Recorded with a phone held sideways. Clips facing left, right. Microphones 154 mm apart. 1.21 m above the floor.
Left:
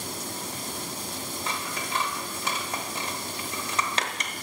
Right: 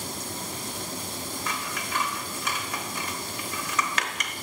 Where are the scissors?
30° left (ahead or behind), 1.1 m.